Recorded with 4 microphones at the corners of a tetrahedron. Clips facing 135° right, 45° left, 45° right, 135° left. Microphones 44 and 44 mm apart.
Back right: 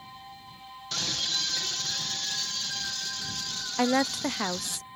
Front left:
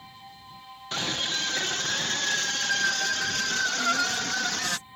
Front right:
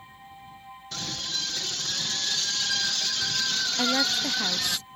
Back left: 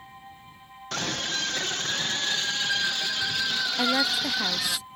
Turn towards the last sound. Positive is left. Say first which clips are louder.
# back right 1 dB, back left 1 dB
turn(degrees=-140)